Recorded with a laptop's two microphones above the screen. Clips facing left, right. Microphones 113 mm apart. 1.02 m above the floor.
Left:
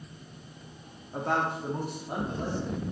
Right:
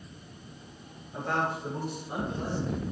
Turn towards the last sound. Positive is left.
turn(degrees=50)  # may be behind; listen again after turning